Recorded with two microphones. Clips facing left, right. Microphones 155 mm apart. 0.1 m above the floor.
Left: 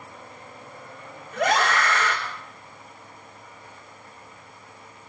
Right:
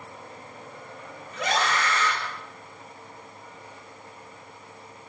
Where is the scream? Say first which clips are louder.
Left 4 dB; 60° left (ahead or behind), 7.5 m.